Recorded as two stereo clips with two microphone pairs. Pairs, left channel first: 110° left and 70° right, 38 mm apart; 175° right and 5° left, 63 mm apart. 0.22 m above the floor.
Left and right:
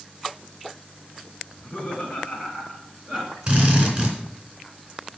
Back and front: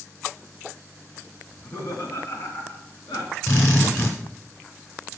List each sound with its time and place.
1.5 s laughter: 155° left, 2.5 m; by 3.4 s 160° right, 2.5 m
3.5 s a drill: 135° right, 3 m